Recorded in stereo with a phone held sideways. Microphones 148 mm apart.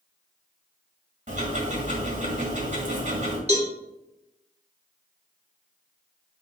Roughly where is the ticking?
Right.